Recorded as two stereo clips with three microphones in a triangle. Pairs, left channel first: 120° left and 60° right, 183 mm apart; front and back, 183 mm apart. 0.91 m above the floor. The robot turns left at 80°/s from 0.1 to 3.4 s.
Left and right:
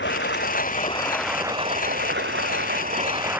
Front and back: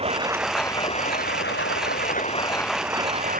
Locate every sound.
0.0 s running water: 125° left; by 3.4 s 140° right